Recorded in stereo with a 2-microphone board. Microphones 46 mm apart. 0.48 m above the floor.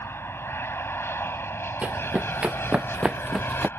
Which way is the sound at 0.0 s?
65° left (ahead or behind).